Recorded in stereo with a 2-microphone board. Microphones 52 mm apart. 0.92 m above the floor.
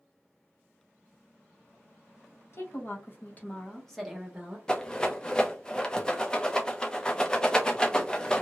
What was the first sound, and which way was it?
A woman speaking, 55° left (ahead or behind).